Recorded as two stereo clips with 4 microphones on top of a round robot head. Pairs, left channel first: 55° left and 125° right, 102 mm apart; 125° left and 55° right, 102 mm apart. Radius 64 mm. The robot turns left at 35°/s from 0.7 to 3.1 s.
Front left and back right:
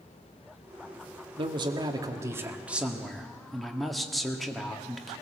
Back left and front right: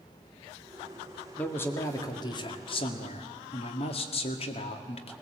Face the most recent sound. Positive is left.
turn(degrees=140)